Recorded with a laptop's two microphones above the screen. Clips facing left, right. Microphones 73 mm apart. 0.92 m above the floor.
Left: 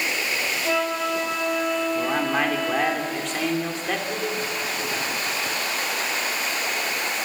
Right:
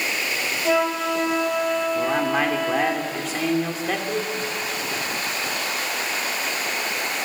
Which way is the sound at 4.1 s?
30° right (ahead or behind).